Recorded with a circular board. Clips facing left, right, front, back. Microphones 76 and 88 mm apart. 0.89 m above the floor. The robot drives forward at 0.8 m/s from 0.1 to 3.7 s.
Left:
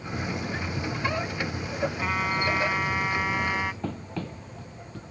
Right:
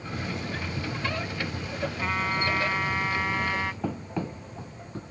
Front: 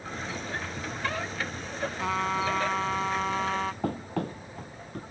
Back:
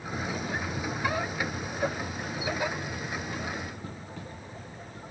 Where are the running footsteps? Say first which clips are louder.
Right 2 dB, front 10 dB; 10° right; by 5.0 s 35° right.